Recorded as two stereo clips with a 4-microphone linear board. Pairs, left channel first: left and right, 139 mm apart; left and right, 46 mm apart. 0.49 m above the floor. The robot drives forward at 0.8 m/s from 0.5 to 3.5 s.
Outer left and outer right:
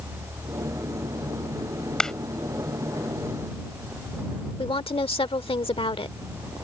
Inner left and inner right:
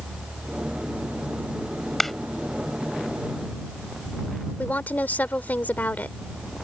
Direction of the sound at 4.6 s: 40° left (ahead or behind).